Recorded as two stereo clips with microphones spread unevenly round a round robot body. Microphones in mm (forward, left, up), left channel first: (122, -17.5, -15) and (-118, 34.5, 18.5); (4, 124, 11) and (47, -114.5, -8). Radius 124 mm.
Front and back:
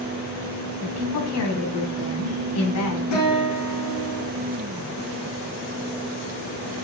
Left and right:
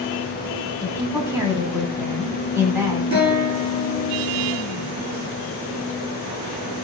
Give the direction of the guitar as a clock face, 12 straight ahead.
12 o'clock.